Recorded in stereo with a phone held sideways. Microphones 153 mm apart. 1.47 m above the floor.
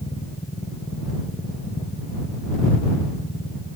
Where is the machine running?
45° left (ahead or behind).